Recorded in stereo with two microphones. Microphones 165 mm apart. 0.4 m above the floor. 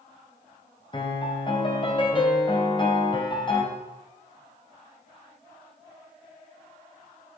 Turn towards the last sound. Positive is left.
turn(degrees=30)  # may be behind; listen again after turning